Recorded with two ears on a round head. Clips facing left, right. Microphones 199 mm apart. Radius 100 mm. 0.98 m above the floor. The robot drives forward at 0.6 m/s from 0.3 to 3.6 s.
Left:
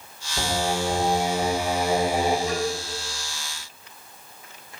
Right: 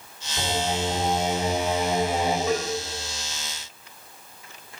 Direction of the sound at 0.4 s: 10° left (ahead or behind).